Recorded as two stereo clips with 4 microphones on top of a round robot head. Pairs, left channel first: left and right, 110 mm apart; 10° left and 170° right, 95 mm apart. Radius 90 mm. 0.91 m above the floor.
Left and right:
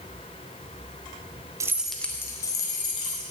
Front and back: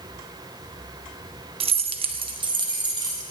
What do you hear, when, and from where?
1.6 s keys jangling: 155° right, 0.7 m; by 3.2 s 145° left, 2.5 m